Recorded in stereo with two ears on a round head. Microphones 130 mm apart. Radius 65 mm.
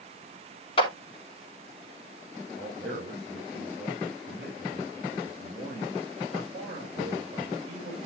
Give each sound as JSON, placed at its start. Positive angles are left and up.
{"t": 0.8, "sound": "a clap", "side_deg": 40, "distance_m": 2.0}
{"t": 2.6, "sound": "a man speaking", "side_deg": -30, "distance_m": 4.5}